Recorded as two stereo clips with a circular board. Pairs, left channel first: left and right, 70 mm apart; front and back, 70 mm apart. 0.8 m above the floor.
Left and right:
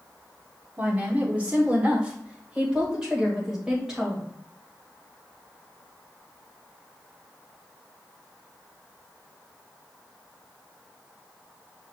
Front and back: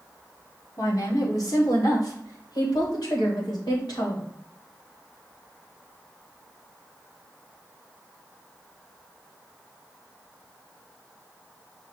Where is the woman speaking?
30° right, 2.0 m; by 4.2 s 10° right, 4 m.